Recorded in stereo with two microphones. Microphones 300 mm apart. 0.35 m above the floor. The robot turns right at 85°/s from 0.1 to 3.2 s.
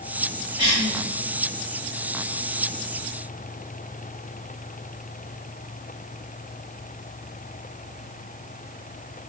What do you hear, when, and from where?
0.6 s a cough: 50° left (ahead or behind), 1.5 m; by 0.9 s 30° left (ahead or behind), 1.5 m